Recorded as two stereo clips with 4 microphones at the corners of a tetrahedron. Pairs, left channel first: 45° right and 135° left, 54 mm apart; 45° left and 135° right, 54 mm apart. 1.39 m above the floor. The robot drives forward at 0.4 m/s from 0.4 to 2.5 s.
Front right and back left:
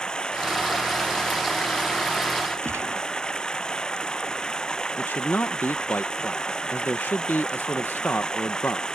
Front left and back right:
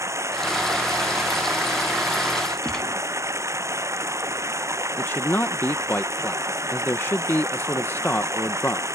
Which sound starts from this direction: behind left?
A gunshot, at 2.6 s.